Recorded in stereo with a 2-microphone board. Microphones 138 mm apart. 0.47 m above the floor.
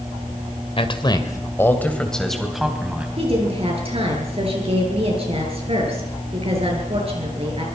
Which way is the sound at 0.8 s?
40° left (ahead or behind).